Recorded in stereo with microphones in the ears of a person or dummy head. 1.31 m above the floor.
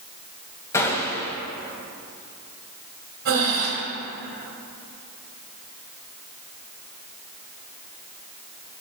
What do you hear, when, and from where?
0.7 s a gunshot: 20° left (ahead or behind), 2 m
3.2 s breathing: 75° right (ahead or behind), 3 m